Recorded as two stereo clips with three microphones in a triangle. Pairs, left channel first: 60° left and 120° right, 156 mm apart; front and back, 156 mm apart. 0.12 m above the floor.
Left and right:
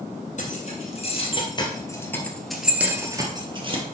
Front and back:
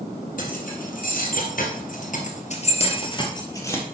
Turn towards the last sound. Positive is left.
turn(degrees=-75)